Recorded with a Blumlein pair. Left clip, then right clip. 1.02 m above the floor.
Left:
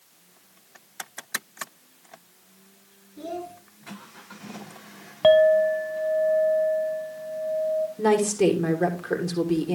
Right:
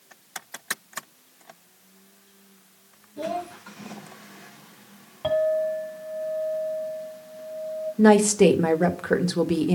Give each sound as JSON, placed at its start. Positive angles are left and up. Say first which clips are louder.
{"t": 3.2, "sound": "a child speaking", "louder": "right 5 dB", "azimuth_deg": -70, "distance_m": 2.0}
{"t": 5.2, "sound": "a clink", "louder": "left 7 dB", "azimuth_deg": 25, "distance_m": 1.0}
{"t": 8.0, "sound": "a woman speaking", "louder": "right 6 dB", "azimuth_deg": -15, "distance_m": 1.3}